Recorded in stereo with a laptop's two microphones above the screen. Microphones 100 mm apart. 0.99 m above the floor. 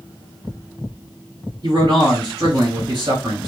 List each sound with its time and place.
1.6 s a man speaking: 45° right (ahead or behind), 3.5 m